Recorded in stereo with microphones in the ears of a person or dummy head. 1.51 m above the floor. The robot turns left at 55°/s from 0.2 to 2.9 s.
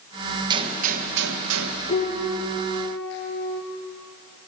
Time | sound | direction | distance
0.5 | a gunshot | 25° right | 1.8 m
1.9 | a piano | 140° left | 5.5 m